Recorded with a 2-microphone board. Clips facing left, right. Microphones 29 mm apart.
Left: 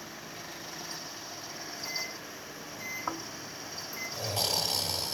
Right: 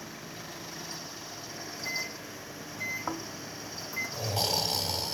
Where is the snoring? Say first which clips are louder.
Right 1 dB; 10° right (ahead or behind), 1.2 m.